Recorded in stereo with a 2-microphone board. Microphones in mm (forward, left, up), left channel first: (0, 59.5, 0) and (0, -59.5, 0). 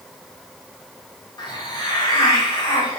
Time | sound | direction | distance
1.4 | a hiss | 35° left (ahead or behind) | 1.2 m